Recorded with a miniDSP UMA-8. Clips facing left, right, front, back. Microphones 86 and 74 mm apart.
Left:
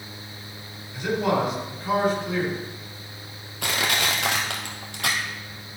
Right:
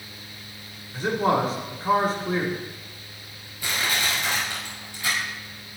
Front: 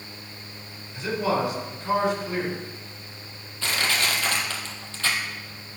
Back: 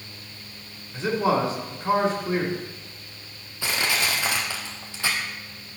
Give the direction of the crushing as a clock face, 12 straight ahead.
9 o'clock.